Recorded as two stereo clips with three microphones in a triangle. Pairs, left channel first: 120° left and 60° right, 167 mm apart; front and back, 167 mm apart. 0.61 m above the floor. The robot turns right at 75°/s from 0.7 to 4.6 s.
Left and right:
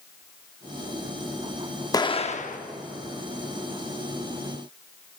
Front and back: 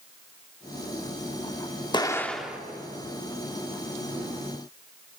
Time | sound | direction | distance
1.9 | an explosion | 55° left | 0.7 m